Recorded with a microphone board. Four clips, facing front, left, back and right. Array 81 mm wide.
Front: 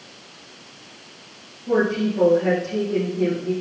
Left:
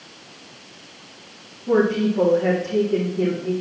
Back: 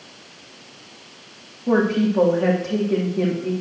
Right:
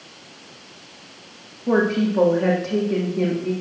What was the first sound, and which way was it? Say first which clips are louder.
A woman speaking: left 1 dB, back 2 dB; 140° right.